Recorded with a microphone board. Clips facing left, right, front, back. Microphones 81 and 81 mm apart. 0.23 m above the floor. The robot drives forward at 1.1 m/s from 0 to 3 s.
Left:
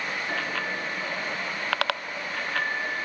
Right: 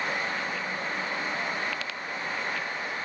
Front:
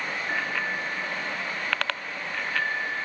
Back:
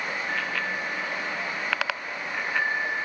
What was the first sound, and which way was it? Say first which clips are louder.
A bicycle bell: left 2 dB, front 2 dB; 80° left.